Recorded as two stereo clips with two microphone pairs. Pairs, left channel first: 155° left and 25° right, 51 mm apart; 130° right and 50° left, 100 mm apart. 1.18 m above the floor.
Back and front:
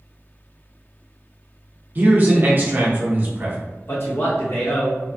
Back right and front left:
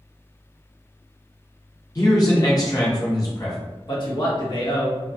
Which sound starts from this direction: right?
A man speaking, at 1.9 s.